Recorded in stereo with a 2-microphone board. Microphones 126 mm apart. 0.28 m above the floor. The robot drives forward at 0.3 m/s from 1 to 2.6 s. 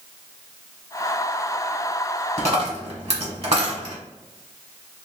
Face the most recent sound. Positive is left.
turn(degrees=-60)  # may be behind; listen again after turning